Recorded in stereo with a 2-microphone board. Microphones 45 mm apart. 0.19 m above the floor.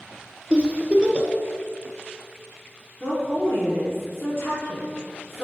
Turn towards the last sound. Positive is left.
turn(degrees=55)  # may be behind; listen again after turning